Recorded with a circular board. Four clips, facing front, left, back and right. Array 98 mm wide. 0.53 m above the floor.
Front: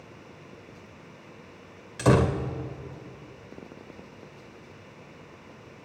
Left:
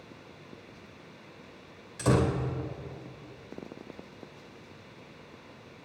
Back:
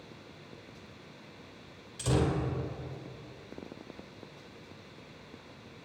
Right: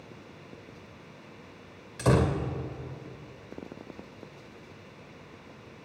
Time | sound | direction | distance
2.0 | a door slam | 15° right | 1.7 m